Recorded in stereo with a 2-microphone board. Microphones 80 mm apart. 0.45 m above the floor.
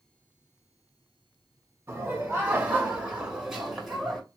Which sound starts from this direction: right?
Laughter, at 1.9 s.